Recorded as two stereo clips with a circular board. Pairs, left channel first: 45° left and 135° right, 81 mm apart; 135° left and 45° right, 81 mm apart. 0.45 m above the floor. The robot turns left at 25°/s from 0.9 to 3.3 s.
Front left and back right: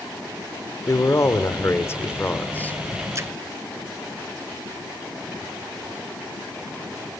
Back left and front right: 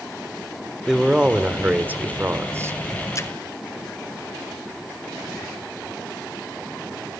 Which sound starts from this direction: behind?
A splash, at 3.1 s.